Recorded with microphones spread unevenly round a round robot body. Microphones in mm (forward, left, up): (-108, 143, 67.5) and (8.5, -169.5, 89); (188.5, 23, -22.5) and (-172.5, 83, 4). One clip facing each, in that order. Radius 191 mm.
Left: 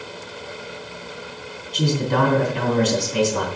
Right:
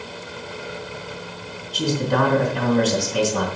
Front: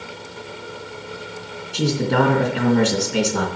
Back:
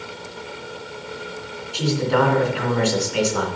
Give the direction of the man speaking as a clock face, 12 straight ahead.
10 o'clock.